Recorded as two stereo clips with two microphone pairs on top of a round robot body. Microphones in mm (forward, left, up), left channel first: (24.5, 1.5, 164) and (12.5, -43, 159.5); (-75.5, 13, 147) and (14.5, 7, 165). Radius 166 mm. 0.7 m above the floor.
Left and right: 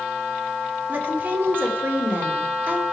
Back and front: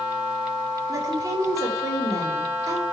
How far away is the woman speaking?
About 3 m.